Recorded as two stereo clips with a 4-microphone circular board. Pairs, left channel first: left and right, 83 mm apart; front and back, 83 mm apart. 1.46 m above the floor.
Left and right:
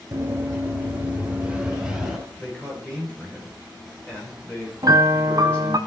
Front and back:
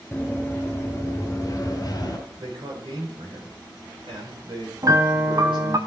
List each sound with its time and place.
0.1 s running footsteps: 60° right, 1.6 m; by 2.2 s 5° right, 2 m
2.4 s a man speaking: 165° left, 4 m
4.8 s a piano: 130° right, 0.7 m